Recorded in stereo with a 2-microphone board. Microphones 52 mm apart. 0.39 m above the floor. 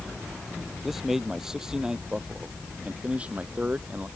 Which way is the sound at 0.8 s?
5° right (ahead or behind).